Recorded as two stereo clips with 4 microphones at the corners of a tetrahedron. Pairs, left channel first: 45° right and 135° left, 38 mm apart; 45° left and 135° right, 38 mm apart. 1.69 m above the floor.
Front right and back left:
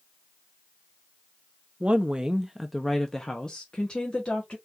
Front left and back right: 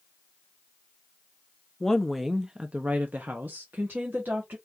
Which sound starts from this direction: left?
A woman speaking, at 1.8 s.